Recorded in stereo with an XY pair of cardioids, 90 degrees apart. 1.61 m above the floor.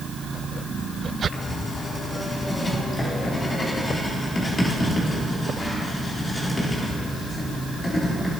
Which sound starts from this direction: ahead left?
Writing, at 1.3 s.